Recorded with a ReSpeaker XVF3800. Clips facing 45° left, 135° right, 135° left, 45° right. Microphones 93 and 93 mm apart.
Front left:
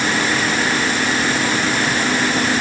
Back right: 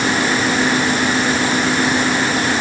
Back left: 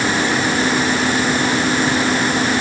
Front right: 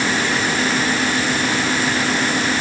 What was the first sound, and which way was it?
Only background noise.